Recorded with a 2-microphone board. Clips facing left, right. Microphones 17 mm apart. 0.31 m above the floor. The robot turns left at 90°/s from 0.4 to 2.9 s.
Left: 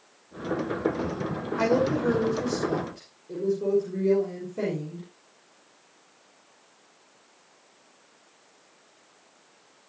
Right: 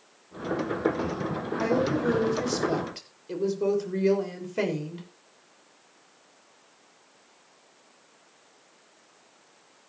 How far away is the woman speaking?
About 6.5 m.